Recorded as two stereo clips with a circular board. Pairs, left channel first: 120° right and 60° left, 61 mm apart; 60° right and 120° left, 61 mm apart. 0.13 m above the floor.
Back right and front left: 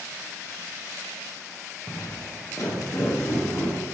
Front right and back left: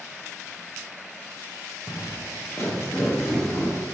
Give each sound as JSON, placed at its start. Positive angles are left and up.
{"t": 1.9, "sound": "footsteps", "azimuth_deg": -90, "distance_m": 1.2}